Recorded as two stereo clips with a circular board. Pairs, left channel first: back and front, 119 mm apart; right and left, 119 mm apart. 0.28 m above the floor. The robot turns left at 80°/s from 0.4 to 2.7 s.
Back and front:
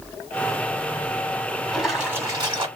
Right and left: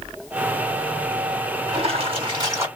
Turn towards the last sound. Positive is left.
turn(degrees=25)